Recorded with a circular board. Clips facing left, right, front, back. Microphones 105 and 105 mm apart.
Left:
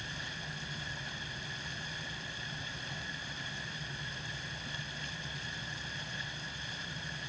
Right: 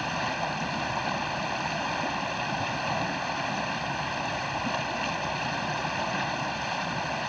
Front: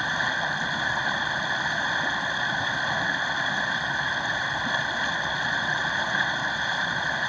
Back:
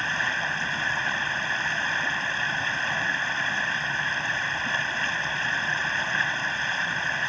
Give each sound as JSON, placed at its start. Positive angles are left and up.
{"t": 0.0, "sound": "running water", "azimuth_deg": -75}